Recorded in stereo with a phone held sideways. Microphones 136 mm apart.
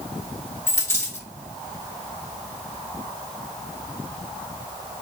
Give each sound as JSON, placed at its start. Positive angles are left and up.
{"t": 0.7, "sound": "a dropped coin", "side_deg": 20, "distance_m": 1.2}